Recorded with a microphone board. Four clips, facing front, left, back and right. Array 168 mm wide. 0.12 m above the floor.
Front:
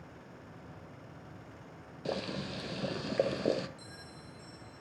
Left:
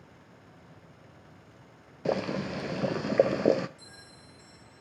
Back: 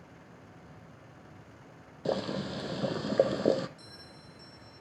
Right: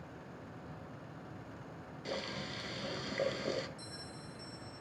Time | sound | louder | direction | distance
2.0 | boiling | left 12 dB, back 5 dB | 115° left | 0.5 m
3.8 | a bell | right 4 dB, front 1 dB | 40° left | 2 m